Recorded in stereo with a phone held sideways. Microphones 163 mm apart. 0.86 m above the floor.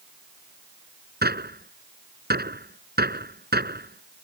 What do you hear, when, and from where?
1.2 s a gunshot: 75° right (ahead or behind)